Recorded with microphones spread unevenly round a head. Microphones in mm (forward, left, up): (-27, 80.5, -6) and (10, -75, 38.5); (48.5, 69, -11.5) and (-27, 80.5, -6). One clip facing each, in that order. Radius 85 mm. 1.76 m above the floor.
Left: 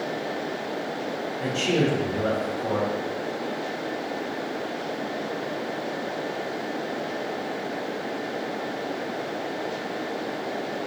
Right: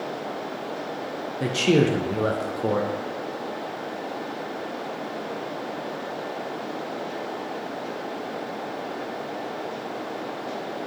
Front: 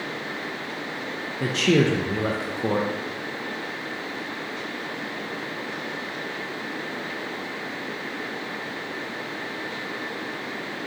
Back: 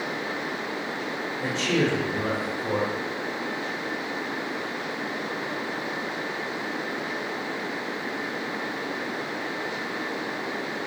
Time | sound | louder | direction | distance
1.4 | a man speaking | right 4 dB, front 5 dB | 35° right | 0.5 m